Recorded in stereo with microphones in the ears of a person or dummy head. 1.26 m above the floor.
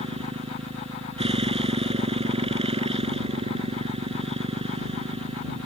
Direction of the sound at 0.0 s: 25° right (ahead or behind).